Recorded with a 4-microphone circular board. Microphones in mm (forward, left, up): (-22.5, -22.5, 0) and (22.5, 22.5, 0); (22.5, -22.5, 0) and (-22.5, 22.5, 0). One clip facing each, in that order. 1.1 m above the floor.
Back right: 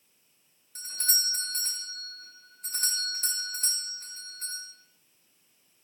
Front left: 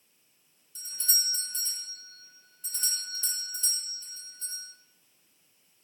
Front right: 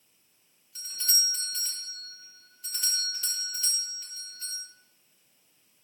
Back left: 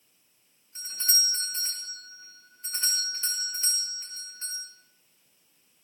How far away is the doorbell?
About 3.5 m.